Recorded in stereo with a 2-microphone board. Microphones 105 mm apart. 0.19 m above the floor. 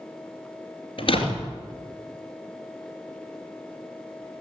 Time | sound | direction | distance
1.0 | a door slam | 60° left (ahead or behind) | 2.5 m